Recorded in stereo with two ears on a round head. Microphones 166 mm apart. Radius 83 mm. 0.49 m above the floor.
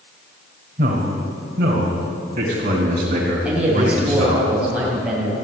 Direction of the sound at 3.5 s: 5° right (ahead or behind).